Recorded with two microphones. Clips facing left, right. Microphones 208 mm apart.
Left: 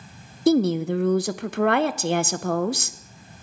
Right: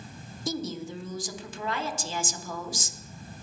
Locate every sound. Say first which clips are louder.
0.5 s a woman speaking: left 15 dB; 65° left (ahead or behind), 0.6 m